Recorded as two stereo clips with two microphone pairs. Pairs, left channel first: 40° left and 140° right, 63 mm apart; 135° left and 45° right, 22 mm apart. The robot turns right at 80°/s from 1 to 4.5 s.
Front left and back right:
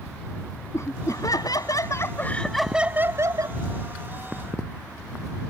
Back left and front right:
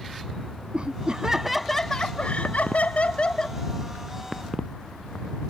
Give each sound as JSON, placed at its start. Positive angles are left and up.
{"t": 0.7, "sound": "laughter", "azimuth_deg": 0}